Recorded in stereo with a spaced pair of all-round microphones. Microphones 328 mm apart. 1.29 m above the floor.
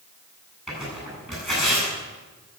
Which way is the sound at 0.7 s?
Centre (ahead or behind).